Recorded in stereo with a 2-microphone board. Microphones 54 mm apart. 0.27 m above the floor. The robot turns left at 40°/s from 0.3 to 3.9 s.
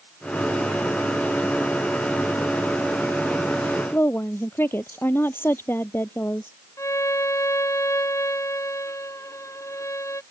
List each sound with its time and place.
3.9 s a woman speaking: 45° left (ahead or behind)
6.8 s a violin: 60° left (ahead or behind)